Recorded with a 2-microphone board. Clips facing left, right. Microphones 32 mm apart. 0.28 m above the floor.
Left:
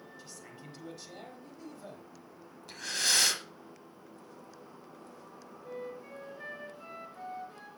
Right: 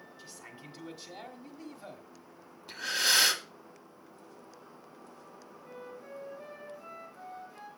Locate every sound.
0.2 s a man speaking: 15° right (ahead or behind), 1.2 m
2.7 s breathing: 10° right (ahead or behind), 1.1 m
5.6 s a flute: 40° left (ahead or behind), 4 m